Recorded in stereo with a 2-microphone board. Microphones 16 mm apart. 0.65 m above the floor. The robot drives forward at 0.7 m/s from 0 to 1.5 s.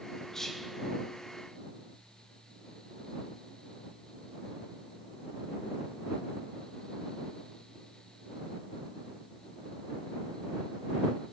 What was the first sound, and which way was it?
Whispering, 30° left (ahead or behind).